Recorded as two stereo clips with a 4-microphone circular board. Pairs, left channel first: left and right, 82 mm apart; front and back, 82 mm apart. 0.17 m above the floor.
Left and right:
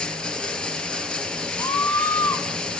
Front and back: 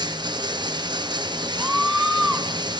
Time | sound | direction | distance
0.0 | running water | 170° left | 1.7 m
1.6 | a scream | 95° left | 2 m